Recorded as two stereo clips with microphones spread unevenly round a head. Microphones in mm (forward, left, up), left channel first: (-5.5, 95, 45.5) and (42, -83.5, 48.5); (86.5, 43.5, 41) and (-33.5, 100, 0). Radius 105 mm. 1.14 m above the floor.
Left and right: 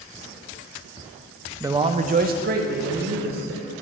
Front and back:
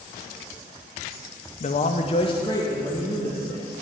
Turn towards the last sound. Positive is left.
turn(degrees=-115)